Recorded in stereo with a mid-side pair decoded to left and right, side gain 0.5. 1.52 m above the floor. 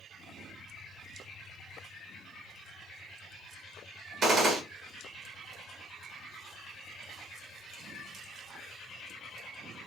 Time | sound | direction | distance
4.2 | a gunshot | 55° right | 1.6 m